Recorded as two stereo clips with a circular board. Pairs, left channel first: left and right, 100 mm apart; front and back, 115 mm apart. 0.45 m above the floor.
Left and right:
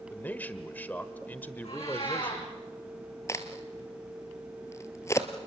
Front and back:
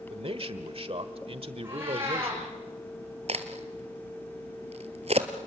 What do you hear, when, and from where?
0.1 s a man speaking: 160° left, 1.4 m
1.6 s a cat meowing: 110° left, 9.5 m
3.3 s a crack: 150° left, 1.4 m